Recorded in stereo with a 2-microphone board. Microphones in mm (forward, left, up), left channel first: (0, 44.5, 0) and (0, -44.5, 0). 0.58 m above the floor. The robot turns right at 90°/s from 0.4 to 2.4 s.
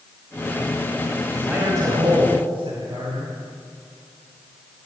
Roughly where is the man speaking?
Behind.